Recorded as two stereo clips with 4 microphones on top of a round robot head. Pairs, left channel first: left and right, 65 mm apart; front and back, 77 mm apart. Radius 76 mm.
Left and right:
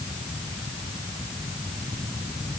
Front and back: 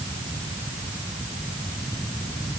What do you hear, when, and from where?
Only background noise.